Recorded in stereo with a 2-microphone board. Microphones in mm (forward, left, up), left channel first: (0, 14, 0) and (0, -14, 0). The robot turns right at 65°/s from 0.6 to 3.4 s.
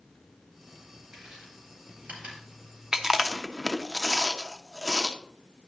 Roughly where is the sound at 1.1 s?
Centre.